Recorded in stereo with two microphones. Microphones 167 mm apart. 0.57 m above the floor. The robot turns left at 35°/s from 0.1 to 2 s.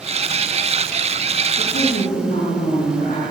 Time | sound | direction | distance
1.6 | a woman speaking | 85° left | 8 m